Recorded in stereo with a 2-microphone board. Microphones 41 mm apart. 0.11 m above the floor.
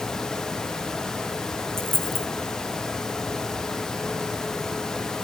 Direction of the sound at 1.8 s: 75° right (ahead or behind).